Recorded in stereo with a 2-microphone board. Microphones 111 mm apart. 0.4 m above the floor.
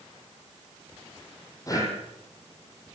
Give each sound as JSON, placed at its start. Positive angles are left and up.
{"t": 1.7, "sound": "breathing", "side_deg": 30, "distance_m": 6.0}